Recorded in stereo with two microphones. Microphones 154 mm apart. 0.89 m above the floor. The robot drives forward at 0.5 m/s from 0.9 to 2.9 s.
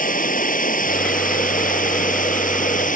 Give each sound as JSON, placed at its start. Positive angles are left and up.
{"t": 0.0, "sound": "running water", "side_deg": 70}